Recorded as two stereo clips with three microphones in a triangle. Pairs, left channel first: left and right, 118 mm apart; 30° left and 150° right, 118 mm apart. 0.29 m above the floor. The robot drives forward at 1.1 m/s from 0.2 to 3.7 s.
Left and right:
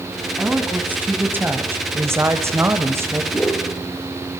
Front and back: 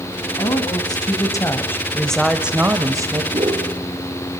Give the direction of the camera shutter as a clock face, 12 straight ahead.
I don't hear a camera shutter.